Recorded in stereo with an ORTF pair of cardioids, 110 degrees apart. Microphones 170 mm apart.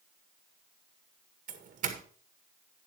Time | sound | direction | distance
1.5 | a doorbell | 50° right | 1.9 m